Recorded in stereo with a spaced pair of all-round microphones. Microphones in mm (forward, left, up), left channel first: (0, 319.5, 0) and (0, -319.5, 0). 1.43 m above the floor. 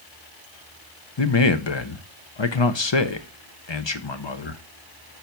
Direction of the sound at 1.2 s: 45° left (ahead or behind).